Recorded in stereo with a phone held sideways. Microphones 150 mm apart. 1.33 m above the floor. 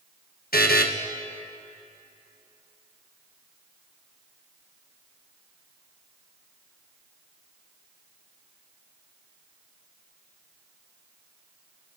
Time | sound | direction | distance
0.5 | a buzzer | 80° left | 1.1 m